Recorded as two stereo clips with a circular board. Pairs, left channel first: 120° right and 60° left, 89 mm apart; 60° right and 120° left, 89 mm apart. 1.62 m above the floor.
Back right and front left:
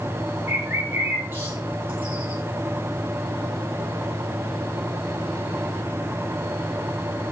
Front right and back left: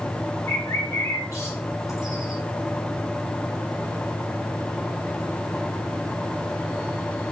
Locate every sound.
0.5 s a bird: 5° right, 5.5 m